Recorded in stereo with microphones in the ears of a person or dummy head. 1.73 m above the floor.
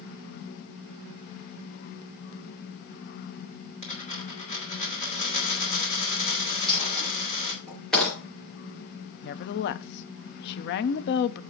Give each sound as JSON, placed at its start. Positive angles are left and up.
{"t": 3.8, "sound": "a dropped coin", "side_deg": 40, "distance_m": 4.5}
{"t": 6.7, "sound": "a dropped coin", "side_deg": 5, "distance_m": 5.0}
{"t": 9.2, "sound": "a woman speaking", "side_deg": 55, "distance_m": 0.7}